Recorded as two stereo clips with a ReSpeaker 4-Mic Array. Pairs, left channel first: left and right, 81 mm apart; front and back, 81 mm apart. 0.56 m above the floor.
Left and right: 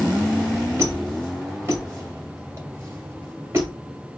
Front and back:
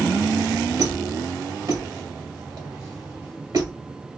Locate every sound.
0.8 s a squeak: 145° right, 1.8 m